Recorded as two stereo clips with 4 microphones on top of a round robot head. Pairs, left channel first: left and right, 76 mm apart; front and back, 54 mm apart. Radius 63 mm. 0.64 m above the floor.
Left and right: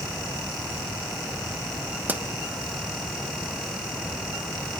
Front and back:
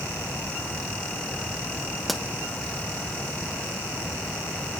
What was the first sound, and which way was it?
A pop, 90° right.